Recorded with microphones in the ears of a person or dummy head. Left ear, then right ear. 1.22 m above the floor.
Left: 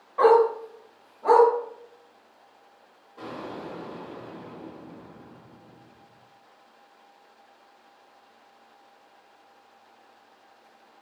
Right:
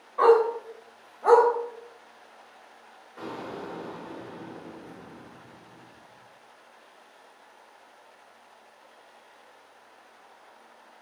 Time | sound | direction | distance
0.2 | a dog barking | 5° left (ahead or behind) | 1.3 m
3.2 | an explosion | 40° right (ahead or behind) | 1.4 m